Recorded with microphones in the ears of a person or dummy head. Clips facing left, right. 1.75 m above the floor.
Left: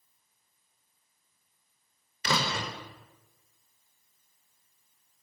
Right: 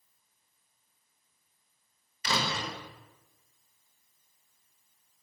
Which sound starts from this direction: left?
A door slam, at 2.2 s.